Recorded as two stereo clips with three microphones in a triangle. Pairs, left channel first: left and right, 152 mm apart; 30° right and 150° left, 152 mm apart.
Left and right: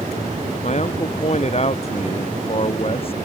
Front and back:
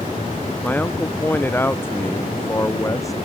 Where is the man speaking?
50° left; by 3.2 s 40° left.